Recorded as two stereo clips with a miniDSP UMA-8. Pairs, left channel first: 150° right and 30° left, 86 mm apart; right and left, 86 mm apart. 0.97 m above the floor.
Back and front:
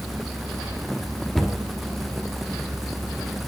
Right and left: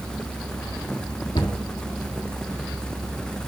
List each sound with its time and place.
1.4 s a cupboard door: 60° right, 1.2 m